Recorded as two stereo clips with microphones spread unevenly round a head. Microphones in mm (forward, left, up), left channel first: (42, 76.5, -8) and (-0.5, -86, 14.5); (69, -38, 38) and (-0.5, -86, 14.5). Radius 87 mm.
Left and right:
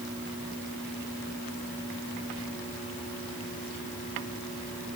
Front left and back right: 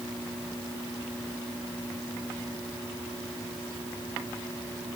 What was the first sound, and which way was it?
Only background noise.